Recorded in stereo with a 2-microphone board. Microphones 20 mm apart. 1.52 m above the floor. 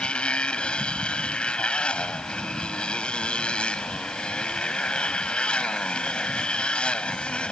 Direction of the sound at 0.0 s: 60° left (ahead or behind).